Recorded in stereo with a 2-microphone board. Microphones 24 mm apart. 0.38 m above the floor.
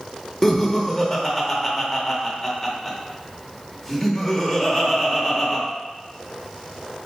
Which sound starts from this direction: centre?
Laughter, at 0.4 s.